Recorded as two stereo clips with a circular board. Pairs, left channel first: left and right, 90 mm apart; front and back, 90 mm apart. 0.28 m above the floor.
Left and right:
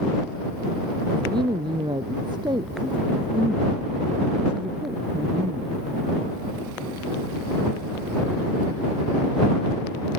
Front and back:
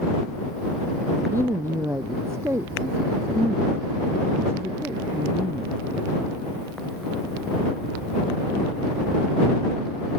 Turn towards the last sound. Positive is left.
turn(degrees=-115)